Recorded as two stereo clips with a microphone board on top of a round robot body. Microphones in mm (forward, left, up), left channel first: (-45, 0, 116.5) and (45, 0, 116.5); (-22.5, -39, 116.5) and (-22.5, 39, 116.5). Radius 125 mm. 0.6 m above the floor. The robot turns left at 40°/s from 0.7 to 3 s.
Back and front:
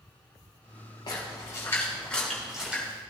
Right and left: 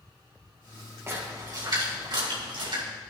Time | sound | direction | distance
1.1 | a splash | 145° left | 3.5 m